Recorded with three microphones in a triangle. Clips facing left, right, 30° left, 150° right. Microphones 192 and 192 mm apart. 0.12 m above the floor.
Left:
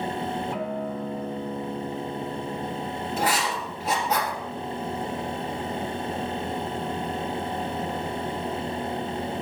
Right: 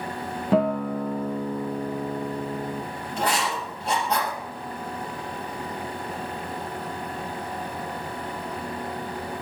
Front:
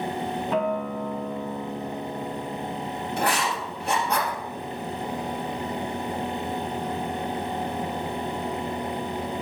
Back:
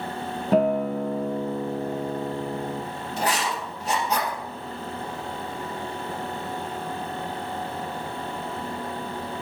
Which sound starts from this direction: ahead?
Writing, at 3.2 s.